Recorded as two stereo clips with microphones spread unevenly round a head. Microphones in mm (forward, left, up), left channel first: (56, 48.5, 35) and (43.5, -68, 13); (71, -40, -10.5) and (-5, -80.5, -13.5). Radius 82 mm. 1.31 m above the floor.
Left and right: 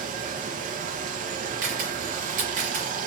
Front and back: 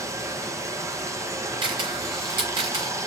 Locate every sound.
0.0 s running water: 95° right, 1.0 m
1.6 s a camera shutter: 140° right, 2.5 m